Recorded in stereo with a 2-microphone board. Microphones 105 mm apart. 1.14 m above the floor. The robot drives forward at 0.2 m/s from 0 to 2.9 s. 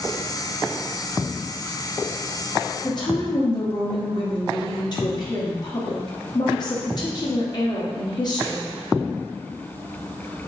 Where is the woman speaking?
45° left (ahead or behind), 1.0 m; by 8.7 s 40° left (ahead or behind), 1.0 m.